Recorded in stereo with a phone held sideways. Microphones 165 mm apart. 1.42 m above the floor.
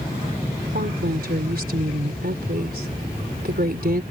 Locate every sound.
0.7 s a woman speaking: 70° right (ahead or behind)